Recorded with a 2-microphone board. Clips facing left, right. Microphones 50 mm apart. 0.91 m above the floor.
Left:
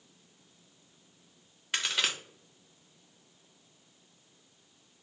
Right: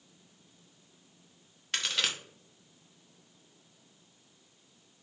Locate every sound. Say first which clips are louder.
1.7 s a crack: left 1 dB; 5° left (ahead or behind), 0.7 m